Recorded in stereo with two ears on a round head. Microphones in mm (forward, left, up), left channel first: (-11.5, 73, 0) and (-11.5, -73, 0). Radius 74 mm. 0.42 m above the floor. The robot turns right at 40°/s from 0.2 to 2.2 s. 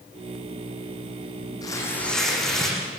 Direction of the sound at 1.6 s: 25° left (ahead or behind).